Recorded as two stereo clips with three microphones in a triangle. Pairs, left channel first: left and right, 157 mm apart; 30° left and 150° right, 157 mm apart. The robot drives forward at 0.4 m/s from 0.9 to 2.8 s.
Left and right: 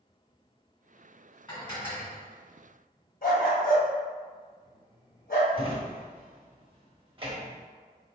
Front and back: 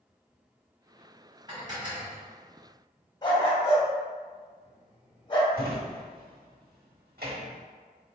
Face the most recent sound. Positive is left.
turn(degrees=-145)